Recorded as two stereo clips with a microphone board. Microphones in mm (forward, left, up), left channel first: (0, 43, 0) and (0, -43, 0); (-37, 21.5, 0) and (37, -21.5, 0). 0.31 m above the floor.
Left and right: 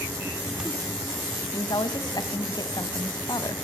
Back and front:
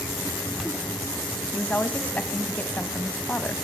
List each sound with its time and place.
1.5 s a woman speaking: 85° left, 2.0 m